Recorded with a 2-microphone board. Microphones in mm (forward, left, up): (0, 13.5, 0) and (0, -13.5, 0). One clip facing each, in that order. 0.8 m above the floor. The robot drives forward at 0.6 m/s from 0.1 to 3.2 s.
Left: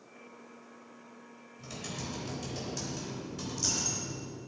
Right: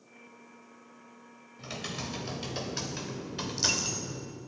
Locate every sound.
1.6 s typing on a keyboard: 40° right (ahead or behind), 3.5 m; by 4.4 s 55° right (ahead or behind), 2.5 m
3.5 s a dropped coin: 65° right (ahead or behind), 2 m